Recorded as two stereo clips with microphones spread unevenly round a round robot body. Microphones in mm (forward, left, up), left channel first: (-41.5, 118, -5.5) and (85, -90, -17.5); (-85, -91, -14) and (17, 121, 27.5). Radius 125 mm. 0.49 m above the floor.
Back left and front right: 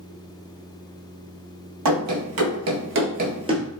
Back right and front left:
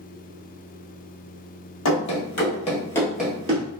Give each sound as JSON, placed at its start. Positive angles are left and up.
{"t": 1.9, "sound": "running footsteps", "azimuth_deg": -75, "distance_m": 1.0}